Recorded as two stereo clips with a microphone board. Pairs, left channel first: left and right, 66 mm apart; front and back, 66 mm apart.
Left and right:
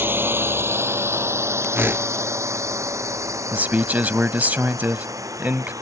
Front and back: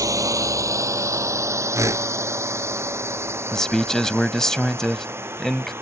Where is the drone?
145° right; by 5.8 s 125° right.